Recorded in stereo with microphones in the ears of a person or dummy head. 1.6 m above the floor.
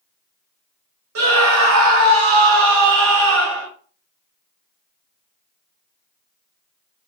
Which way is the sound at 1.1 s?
80° right.